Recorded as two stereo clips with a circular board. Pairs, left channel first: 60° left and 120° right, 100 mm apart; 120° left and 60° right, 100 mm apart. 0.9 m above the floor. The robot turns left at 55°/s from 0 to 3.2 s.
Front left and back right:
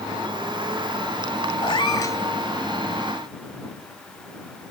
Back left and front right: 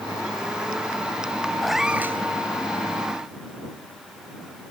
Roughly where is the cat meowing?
Ahead left.